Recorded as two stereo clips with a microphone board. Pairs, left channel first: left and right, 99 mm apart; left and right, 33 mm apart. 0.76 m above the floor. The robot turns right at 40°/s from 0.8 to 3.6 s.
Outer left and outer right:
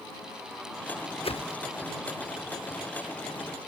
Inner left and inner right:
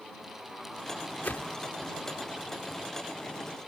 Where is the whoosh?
70° left (ahead or behind); by 1.6 s 75° left (ahead or behind).